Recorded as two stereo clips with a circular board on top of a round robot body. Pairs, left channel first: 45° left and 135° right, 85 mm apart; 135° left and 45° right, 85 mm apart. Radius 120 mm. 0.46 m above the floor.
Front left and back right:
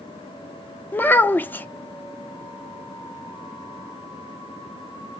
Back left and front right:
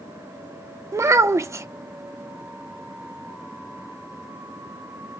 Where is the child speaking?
10° right, 0.5 m.